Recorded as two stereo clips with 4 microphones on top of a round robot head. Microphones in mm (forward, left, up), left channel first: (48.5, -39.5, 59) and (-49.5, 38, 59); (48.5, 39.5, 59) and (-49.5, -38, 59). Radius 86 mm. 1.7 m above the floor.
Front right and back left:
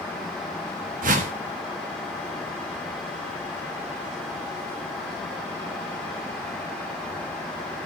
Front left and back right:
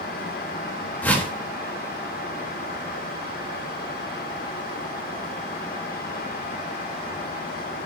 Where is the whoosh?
115° left, 4 m.